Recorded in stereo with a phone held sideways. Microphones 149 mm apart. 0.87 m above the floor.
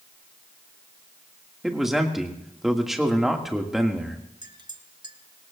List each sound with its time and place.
1.6 s a man speaking: centre (ahead or behind), 2.0 m
4.4 s a clink: 30° right (ahead or behind), 1.2 m